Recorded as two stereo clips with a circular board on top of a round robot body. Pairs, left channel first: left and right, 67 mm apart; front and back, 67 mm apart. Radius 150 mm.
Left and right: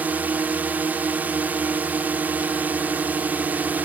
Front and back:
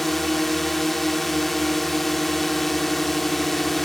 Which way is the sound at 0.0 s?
85° right.